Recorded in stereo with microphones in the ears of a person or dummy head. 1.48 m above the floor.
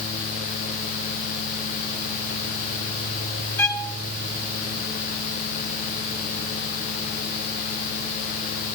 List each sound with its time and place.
3.6 s a violin: 10° left (ahead or behind), 1.4 m